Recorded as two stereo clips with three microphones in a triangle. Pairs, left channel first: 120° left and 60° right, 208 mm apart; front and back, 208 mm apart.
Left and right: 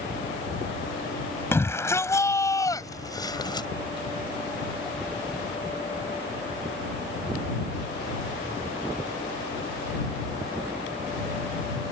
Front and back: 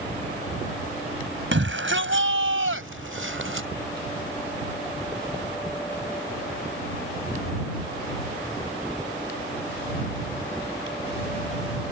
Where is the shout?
160° right; by 3.7 s 170° right.